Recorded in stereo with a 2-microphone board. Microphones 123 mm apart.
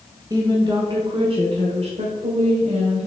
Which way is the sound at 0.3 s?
30° right (ahead or behind).